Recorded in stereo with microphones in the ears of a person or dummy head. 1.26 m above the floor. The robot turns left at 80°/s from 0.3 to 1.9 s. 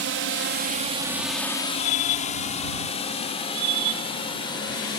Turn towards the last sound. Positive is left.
turn(degrees=25)  # may be behind; listen again after turning